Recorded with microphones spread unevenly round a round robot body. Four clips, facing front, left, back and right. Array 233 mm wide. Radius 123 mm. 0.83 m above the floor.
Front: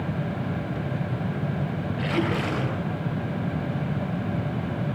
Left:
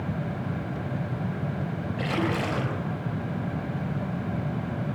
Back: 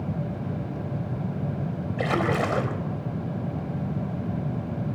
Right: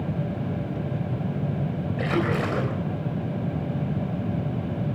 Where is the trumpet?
No trumpet in this recording.